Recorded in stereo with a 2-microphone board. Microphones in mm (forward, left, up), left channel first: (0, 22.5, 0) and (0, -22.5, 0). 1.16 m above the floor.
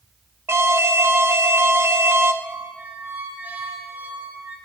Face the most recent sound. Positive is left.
turn(degrees=-45)  # may be behind; listen again after turning